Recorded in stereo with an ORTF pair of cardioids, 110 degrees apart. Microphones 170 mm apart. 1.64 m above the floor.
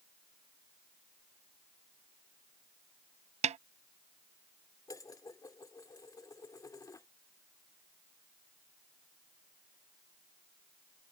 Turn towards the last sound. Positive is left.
turn(degrees=20)